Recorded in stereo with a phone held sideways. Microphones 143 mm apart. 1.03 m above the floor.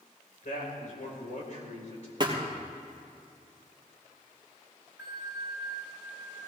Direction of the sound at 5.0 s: 20° right (ahead or behind).